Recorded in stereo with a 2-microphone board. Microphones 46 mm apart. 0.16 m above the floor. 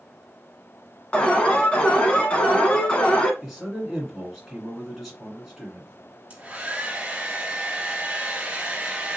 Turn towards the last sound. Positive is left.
turn(degrees=-25)  # may be behind; listen again after turning